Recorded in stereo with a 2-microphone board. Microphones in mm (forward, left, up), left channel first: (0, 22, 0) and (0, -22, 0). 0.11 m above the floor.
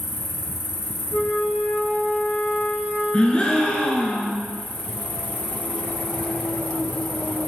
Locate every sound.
0.0 s an insect: 40° right (ahead or behind), 0.9 m
1.1 s a flute: 75° left (ahead or behind), 1.6 m
3.1 s a gasp: 25° left (ahead or behind), 0.7 m